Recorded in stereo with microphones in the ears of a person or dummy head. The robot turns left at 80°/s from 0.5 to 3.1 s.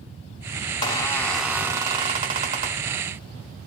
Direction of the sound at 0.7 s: 55° left.